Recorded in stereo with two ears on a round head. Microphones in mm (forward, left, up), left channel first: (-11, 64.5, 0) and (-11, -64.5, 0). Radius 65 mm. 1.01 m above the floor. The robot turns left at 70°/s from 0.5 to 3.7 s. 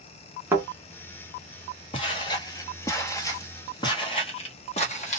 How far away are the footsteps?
About 1.2 m.